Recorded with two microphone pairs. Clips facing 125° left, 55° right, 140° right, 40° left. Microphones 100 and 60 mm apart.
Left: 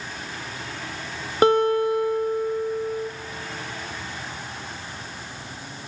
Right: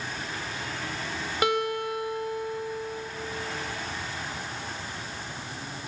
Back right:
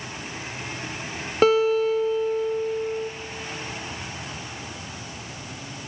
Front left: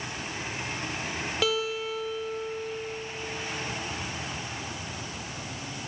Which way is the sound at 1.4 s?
175° left.